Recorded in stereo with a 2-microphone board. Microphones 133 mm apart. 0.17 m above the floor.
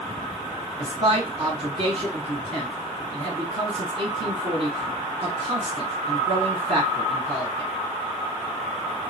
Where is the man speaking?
45° right (ahead or behind), 1.5 m.